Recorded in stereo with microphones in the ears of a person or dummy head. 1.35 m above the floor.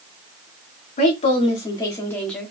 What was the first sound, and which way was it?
A woman speaking, 40° left (ahead or behind).